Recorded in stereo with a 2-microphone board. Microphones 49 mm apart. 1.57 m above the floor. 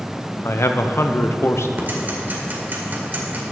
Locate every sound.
0.5 s a man speaking: 60° left (ahead or behind), 0.7 m
1.8 s ticking: 40° right (ahead or behind), 1.6 m